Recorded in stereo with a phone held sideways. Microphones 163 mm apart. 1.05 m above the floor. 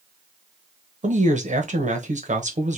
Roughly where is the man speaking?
Right.